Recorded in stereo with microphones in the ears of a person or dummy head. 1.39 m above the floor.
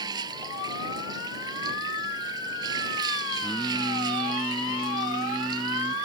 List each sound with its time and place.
0.0 s running water: 20° right (ahead or behind)
3.4 s singing: 5° left (ahead or behind)